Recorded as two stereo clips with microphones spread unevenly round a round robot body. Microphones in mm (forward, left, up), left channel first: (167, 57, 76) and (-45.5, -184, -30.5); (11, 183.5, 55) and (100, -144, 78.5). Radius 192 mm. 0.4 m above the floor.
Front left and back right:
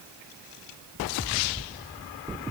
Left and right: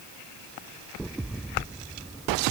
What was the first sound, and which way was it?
Only background noise.